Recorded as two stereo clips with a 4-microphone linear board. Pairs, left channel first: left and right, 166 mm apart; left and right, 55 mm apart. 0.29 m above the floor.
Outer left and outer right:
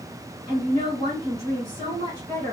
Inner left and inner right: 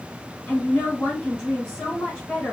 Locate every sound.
0.5 s a woman speaking: 20° left (ahead or behind), 2.5 m